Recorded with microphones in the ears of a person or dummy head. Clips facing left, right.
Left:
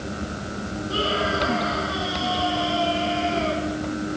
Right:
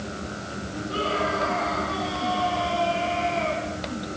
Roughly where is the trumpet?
I don't hear a trumpet.